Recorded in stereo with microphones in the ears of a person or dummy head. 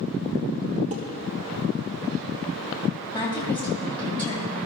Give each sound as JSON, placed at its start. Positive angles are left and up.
{"t": 0.9, "sound": "dishes clattering", "side_deg": -35, "distance_m": 1.3}
{"t": 3.1, "sound": "a woman speaking", "side_deg": 20, "distance_m": 2.5}